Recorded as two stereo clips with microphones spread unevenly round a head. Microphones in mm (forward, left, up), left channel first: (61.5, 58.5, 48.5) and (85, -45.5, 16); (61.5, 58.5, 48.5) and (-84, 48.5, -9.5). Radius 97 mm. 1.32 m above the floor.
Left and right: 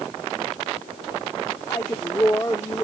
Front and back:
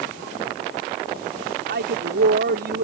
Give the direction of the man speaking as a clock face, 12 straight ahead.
6 o'clock.